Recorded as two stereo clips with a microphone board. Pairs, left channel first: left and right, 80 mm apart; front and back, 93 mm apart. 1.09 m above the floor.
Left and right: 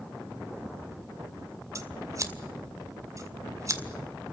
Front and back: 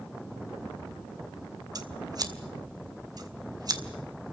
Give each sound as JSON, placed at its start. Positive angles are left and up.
{"t": 1.8, "sound": "scissors", "azimuth_deg": -135, "distance_m": 1.7}